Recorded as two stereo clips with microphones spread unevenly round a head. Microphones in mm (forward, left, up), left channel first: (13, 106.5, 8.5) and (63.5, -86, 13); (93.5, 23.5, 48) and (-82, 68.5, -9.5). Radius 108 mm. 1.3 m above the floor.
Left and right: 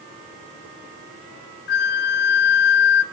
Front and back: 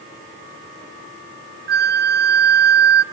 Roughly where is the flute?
Behind left.